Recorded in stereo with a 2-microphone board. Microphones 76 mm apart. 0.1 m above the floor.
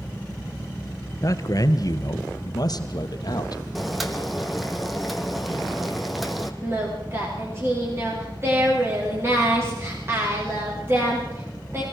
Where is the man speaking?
45° left (ahead or behind), 1.5 m; by 3.6 s 55° left (ahead or behind), 3 m.